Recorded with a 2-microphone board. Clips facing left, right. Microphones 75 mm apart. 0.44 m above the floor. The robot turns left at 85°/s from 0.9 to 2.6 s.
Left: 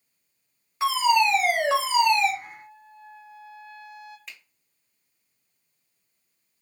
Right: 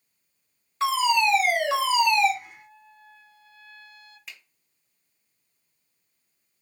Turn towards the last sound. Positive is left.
turn(degrees=0)  # may be behind; listen again after turning